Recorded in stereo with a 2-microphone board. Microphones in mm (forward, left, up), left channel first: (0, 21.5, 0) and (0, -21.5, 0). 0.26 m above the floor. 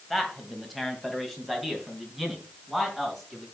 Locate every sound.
0.1 s a man speaking: 5° left (ahead or behind), 1.7 m; by 3.5 s centre (ahead or behind), 3.5 m